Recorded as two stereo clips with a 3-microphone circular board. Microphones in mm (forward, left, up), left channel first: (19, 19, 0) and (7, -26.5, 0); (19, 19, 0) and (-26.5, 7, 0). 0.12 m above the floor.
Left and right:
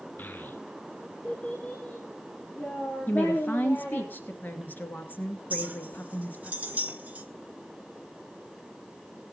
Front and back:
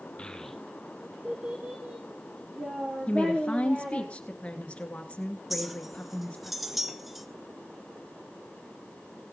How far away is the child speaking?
About 0.9 m.